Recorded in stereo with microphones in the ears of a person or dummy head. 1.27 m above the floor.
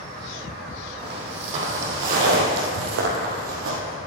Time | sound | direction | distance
1.0 | footsteps | 30° right (ahead or behind) | 3.5 m